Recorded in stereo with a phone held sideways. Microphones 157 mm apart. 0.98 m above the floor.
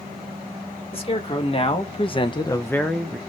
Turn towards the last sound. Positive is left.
turn(degrees=-5)  # may be behind; listen again after turning